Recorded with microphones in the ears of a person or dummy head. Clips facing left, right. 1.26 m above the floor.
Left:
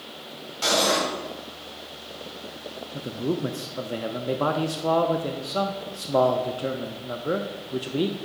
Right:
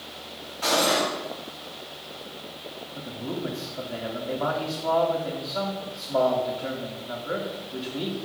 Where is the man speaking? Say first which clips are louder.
Left 6 dB; 55° left (ahead or behind), 0.6 m.